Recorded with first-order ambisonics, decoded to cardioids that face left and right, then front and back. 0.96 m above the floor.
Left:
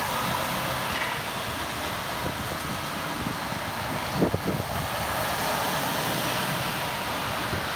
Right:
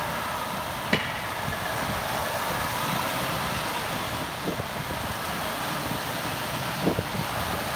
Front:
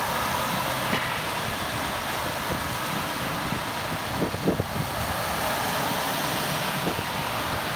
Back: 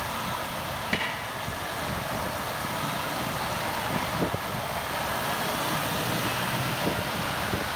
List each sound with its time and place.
0.9 s a snare drum: 115° right, 5.5 m